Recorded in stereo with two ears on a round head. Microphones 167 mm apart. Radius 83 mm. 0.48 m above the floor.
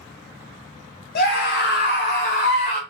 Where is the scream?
50° left (ahead or behind), 3 m; by 2.8 s 30° left (ahead or behind), 1.6 m.